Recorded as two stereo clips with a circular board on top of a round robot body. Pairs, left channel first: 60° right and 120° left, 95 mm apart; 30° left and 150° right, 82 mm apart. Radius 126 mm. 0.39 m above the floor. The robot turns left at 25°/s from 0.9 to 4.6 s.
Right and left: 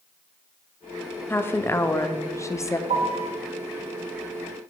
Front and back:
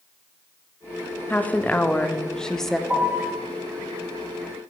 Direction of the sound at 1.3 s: 15° right.